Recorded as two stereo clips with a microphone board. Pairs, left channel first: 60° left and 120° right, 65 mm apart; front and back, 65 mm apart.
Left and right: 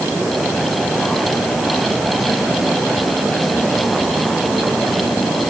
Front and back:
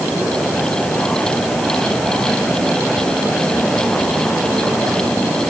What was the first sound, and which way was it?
Only background noise.